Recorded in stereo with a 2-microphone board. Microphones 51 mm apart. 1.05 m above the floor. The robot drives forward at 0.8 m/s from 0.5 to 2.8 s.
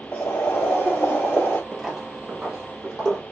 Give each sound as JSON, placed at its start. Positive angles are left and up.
{"t": 0.1, "sound": "boiling", "side_deg": 35, "distance_m": 2.5}
{"t": 1.7, "sound": "footsteps", "side_deg": 0, "distance_m": 1.1}